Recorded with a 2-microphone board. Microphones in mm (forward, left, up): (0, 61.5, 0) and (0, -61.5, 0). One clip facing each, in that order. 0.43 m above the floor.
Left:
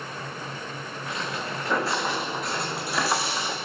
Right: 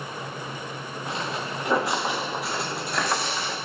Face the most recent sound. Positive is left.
turn(degrees=15)  # may be behind; listen again after turning